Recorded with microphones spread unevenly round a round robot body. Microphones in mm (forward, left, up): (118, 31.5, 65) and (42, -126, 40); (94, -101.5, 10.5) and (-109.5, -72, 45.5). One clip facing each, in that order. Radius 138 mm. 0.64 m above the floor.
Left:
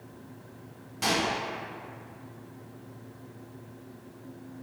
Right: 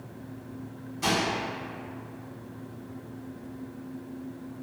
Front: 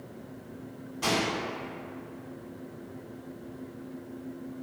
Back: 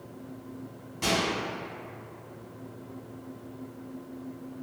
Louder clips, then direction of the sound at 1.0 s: Right 1 dB, even; 95° left.